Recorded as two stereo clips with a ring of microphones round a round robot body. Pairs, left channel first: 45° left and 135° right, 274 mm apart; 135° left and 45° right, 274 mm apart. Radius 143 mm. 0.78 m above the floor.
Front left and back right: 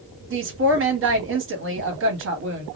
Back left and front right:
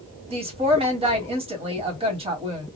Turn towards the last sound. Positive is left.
turn(degrees=-110)